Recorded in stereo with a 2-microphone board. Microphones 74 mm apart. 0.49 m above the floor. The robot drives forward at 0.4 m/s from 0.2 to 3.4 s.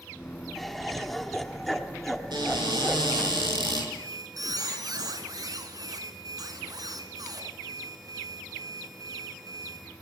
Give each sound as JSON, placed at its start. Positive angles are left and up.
{"t": 0.6, "sound": "laughter", "side_deg": 0, "distance_m": 1.2}
{"t": 2.3, "sound": "a cupboard door", "side_deg": -70, "distance_m": 6.5}
{"t": 3.9, "sound": "a squeak", "side_deg": -60, "distance_m": 2.0}